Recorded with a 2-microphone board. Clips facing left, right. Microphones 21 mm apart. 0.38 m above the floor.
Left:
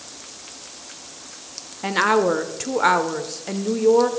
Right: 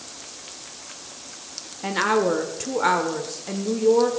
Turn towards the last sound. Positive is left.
turn(degrees=20)  # may be behind; listen again after turning